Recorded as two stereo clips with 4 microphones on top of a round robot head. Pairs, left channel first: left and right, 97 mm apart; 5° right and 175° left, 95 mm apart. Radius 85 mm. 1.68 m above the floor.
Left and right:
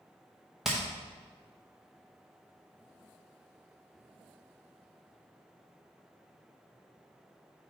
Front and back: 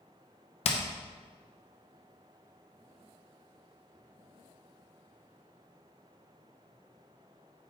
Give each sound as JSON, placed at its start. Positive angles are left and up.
{"t": 0.7, "sound": "hammering", "azimuth_deg": 0, "distance_m": 0.7}